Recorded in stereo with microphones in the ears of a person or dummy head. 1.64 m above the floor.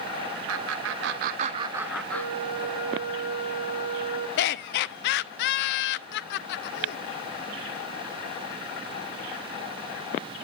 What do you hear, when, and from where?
0.5 s laughter: 80° right, 0.9 m; by 2.9 s 30° left (ahead or behind), 1.0 m
2.1 s a flute: 55° left (ahead or behind), 9.5 m
4.4 s laughter: 60° left (ahead or behind), 0.5 m